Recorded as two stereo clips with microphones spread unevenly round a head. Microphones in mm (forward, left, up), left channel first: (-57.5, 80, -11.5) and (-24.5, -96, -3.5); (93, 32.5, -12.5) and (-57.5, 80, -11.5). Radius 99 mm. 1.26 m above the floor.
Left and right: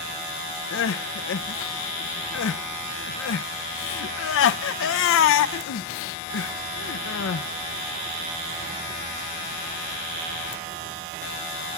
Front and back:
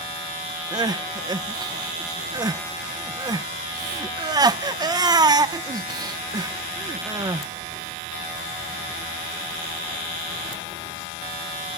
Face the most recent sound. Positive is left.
turn(degrees=95)